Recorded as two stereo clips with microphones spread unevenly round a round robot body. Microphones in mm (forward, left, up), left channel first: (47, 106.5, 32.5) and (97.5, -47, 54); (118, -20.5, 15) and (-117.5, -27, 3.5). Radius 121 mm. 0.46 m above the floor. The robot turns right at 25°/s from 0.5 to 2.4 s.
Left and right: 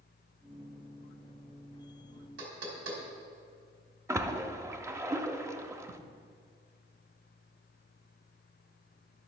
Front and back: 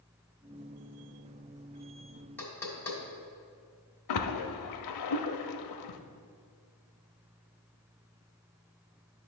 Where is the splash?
5° left, 0.7 m.